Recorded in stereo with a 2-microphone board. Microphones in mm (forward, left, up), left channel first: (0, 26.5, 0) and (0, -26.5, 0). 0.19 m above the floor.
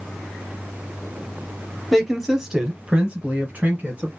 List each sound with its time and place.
1.9 s a woman speaking: centre (ahead or behind), 1.1 m; by 4.1 s 30° right (ahead or behind), 1.4 m